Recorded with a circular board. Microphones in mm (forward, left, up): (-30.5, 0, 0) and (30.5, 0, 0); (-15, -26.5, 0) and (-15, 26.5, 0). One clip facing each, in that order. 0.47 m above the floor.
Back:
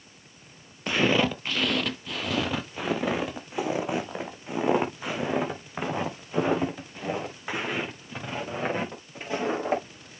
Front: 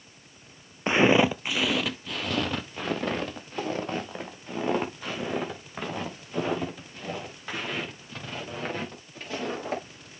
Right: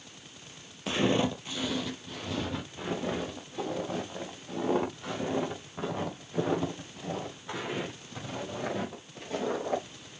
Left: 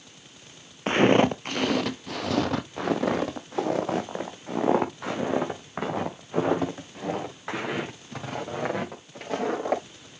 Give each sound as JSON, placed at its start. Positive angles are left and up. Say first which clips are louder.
{"t": 0.9, "sound": "footsteps", "louder": "front 3 dB, left 8 dB", "azimuth_deg": 60, "distance_m": 0.6}